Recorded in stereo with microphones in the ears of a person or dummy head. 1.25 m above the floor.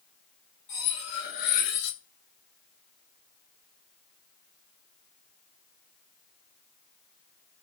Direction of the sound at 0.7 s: 65° left (ahead or behind).